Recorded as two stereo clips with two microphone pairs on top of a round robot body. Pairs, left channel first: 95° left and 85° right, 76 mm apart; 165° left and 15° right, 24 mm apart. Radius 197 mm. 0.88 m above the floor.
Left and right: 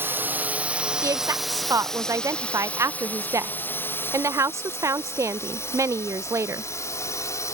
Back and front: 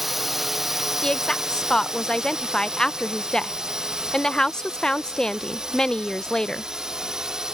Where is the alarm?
No alarm in this recording.